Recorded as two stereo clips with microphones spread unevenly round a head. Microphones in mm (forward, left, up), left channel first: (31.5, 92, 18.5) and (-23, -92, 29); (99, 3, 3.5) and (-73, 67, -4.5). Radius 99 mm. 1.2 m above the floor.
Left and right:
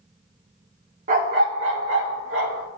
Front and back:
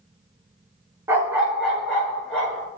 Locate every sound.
1.1 s a dog barking: 125° right, 0.9 m; by 2.7 s 105° right, 1.8 m